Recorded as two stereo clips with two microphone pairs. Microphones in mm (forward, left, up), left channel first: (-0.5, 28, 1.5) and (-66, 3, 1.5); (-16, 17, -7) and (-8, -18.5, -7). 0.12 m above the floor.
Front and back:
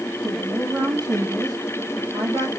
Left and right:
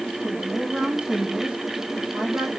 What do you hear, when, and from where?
0.2 s a woman speaking: 140° right, 4.5 m